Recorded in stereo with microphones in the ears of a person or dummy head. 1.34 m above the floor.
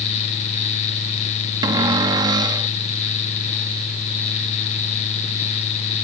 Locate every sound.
1.6 s a cupboard door: 30° right (ahead or behind)